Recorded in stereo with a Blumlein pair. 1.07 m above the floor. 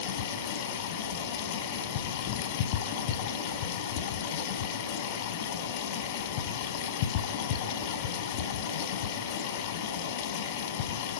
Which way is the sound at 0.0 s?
50° left.